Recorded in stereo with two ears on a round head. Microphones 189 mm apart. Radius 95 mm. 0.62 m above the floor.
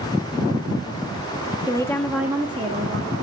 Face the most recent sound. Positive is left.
turn(degrees=-45)  # may be behind; listen again after turning